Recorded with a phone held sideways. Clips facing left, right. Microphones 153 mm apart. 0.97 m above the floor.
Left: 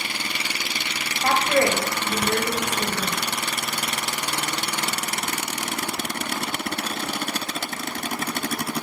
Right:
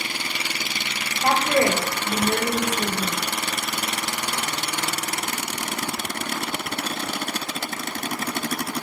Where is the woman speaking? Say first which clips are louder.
Right 1 dB; 20° right (ahead or behind), 1.2 m.